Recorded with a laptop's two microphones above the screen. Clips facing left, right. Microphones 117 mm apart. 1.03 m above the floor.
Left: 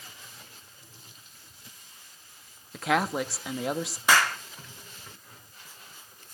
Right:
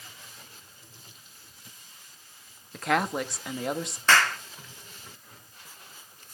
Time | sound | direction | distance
2.7 | a woman speaking | centre (ahead or behind) | 1.4 m
4.1 | a clap | 10° left (ahead or behind) | 1.8 m